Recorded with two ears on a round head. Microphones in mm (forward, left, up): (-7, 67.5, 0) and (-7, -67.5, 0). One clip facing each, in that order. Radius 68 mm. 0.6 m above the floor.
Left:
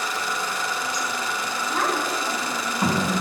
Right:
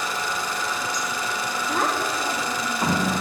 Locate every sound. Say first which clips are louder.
1.7 s a child speaking: even; 10° right (ahead or behind), 1.3 m; by 3.1 s 5° left (ahead or behind), 3 m